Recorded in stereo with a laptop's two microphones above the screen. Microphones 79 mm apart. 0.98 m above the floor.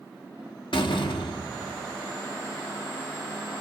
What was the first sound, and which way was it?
A door slam, 85° left.